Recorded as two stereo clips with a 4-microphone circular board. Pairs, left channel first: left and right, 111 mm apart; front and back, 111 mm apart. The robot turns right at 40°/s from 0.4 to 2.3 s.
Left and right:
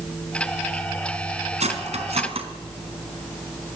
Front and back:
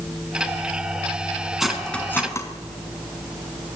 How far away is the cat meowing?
I don't hear a cat meowing.